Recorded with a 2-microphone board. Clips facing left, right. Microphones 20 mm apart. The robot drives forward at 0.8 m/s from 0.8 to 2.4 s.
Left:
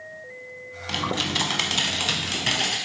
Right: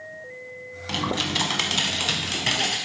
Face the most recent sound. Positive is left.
turn(degrees=5)  # may be behind; listen again after turning